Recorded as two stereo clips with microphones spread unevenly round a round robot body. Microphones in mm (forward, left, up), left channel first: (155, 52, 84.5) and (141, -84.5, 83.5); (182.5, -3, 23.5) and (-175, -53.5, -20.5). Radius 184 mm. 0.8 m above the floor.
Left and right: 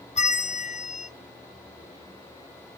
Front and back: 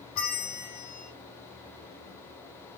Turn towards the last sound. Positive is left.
turn(degrees=55)